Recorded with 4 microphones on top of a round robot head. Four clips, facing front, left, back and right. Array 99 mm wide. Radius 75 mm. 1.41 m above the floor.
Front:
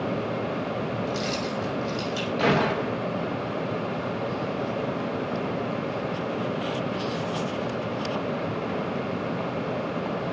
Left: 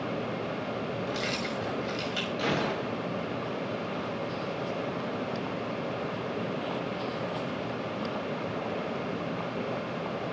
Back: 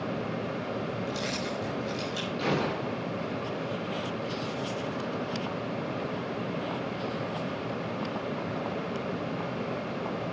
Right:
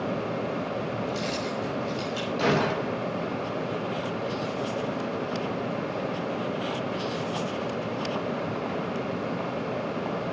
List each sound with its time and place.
1.1 s keys jangling: 75° left, 6 m
2.4 s a gunshot: 20° right, 2.5 m